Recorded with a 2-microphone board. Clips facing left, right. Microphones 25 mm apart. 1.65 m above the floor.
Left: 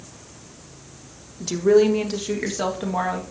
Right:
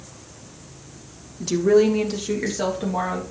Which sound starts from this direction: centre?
A woman speaking, at 1.4 s.